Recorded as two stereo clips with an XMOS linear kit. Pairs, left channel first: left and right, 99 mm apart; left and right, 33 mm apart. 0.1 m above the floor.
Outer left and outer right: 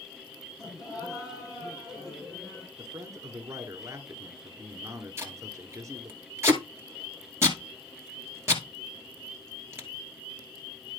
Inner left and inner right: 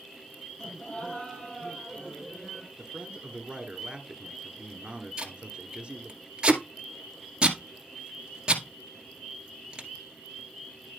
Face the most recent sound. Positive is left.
turn(degrees=-25)  # may be behind; listen again after turning